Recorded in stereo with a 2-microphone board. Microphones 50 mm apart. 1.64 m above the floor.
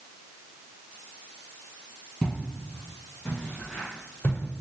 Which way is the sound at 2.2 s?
10° left (ahead or behind).